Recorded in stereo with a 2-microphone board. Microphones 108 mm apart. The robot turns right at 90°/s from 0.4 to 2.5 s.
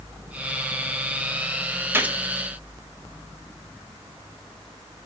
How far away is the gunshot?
About 0.8 m.